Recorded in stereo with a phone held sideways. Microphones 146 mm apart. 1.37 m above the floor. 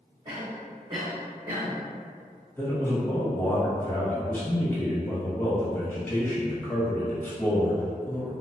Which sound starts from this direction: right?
A cough, at 0.2 s.